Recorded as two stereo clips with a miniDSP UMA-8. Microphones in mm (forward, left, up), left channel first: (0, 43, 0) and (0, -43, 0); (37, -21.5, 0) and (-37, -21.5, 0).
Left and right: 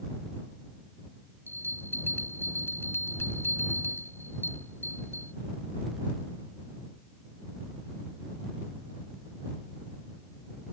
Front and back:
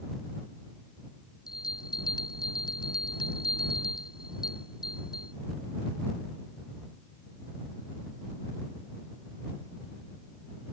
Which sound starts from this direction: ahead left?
A bell, at 1.5 s.